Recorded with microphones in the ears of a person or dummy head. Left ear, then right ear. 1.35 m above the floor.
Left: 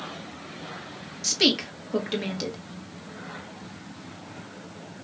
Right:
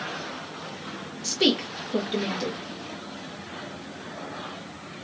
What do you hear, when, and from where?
1.2 s a woman speaking: 20° left (ahead or behind), 1.6 m